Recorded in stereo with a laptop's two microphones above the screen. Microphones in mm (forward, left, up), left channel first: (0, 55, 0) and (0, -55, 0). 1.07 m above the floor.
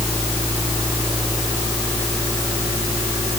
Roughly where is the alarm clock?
No alarm clock in this recording.